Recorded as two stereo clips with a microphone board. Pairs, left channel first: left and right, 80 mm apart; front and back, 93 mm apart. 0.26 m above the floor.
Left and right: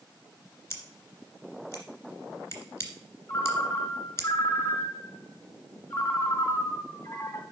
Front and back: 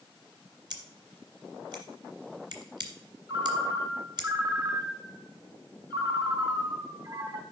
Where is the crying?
I don't hear crying.